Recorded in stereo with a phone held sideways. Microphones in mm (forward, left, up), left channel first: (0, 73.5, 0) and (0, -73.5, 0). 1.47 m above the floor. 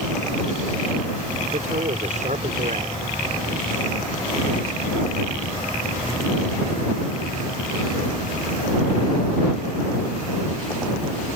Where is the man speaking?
60° right (ahead or behind).